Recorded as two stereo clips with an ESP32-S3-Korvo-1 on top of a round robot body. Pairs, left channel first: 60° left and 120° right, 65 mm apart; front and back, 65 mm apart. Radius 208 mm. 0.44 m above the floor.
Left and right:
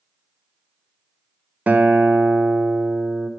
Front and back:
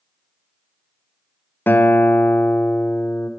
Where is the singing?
No singing in this recording.